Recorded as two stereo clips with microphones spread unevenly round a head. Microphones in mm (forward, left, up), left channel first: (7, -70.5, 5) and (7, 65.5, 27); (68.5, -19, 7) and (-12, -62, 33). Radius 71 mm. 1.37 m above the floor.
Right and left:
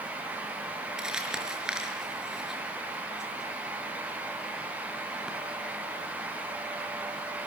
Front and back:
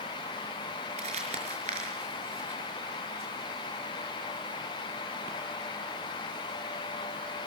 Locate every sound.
1.0 s crumpling: 175° left, 5.5 m